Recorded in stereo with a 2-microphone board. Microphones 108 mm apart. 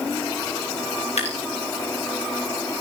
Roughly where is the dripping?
Left.